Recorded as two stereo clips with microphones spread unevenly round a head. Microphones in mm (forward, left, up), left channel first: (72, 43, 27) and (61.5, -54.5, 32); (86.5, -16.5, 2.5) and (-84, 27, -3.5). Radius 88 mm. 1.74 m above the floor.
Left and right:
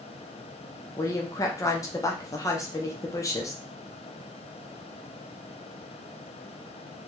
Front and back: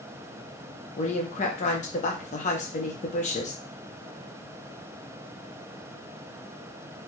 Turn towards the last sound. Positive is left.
turn(degrees=30)